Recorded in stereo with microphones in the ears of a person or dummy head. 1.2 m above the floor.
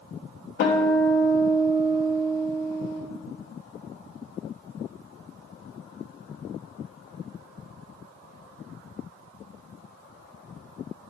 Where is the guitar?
60° left (ahead or behind), 0.9 m.